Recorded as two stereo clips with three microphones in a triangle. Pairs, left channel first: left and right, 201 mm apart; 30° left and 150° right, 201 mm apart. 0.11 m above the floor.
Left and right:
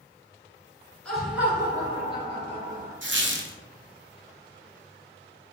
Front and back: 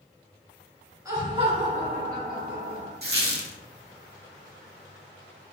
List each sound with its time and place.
1.1 s laughter: 170° left, 1.1 m; by 2.9 s 135° right, 1.9 m
3.0 s a squeak: 115° right, 0.8 m